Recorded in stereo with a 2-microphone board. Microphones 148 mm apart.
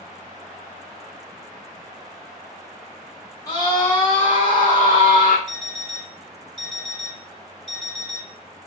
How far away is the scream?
About 1.2 m.